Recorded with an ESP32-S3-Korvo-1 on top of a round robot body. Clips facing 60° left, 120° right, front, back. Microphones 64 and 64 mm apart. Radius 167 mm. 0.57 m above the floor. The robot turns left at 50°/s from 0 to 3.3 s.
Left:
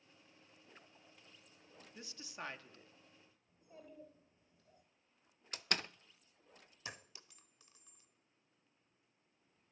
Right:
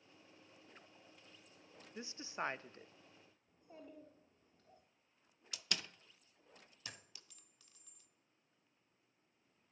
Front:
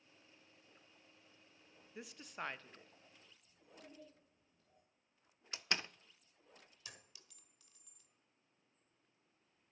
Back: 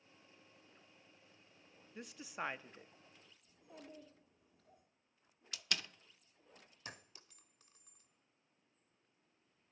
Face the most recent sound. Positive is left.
turn(degrees=125)